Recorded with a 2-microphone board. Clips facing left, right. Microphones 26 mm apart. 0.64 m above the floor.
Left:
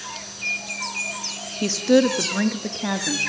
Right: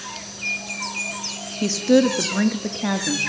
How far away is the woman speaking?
About 0.6 m.